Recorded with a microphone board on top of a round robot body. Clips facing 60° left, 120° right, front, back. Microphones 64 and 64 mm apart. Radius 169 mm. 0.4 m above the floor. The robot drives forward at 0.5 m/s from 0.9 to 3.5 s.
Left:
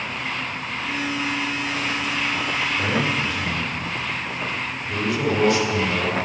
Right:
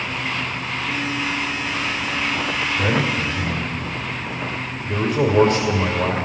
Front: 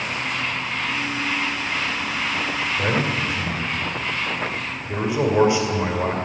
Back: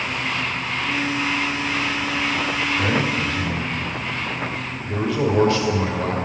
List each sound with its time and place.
2.8 s a man speaking: 65° right, 2.5 m; by 6.2 s 75° right, 2.5 m